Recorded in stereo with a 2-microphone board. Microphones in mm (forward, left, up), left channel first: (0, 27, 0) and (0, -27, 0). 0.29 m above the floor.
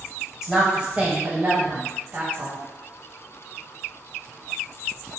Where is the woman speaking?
5° right (ahead or behind), 1.2 m; by 2.6 s 40° right (ahead or behind), 1.3 m.